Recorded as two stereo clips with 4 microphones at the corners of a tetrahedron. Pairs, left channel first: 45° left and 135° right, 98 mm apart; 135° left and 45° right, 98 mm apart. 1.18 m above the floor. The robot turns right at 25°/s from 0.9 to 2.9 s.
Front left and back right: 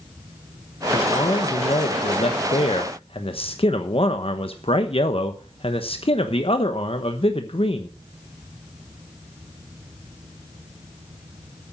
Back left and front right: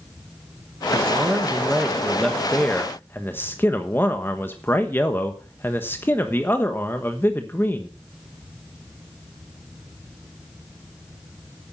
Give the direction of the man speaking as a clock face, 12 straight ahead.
11 o'clock.